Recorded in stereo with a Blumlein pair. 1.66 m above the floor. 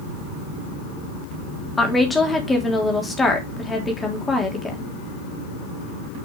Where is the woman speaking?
15° left, 3.5 m.